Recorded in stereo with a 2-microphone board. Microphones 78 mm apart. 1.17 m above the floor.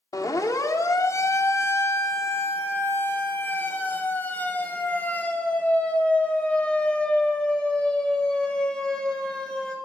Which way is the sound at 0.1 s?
50° left (ahead or behind).